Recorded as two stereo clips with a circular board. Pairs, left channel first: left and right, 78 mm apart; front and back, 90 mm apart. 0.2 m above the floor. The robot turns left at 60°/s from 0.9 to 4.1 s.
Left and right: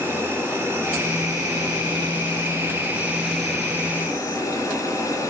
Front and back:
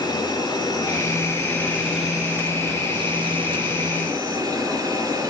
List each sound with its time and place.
0.0 s an insect: 30° right, 3.5 m; by 5.3 s 140° left, 3.5 m